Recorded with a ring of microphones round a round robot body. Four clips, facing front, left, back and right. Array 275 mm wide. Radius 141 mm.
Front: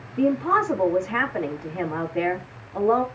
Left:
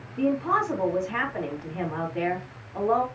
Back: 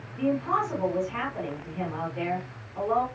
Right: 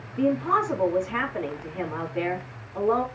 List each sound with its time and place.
0.2 s a woman speaking: 10° left, 4 m